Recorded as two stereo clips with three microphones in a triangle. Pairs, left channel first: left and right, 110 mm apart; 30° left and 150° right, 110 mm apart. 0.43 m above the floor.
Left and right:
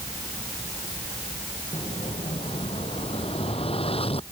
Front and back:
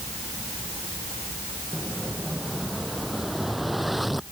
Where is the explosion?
120° left.